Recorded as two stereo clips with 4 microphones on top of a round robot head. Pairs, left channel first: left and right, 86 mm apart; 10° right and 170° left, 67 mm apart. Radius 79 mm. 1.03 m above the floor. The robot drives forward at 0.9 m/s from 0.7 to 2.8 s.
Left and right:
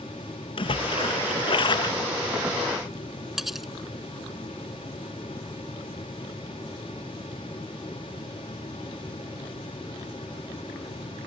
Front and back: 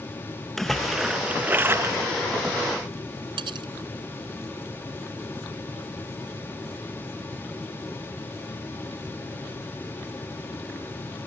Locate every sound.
0.6 s a splash: 75° left; by 2.1 s 125° left
3.4 s cutlery clinking: 175° right